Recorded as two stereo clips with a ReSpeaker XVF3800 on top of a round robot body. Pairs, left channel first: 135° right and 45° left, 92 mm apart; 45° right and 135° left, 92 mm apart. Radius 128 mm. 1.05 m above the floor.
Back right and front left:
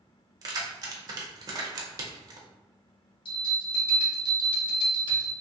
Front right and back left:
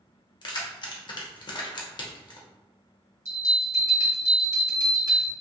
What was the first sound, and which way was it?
Keys jangling, 5° right.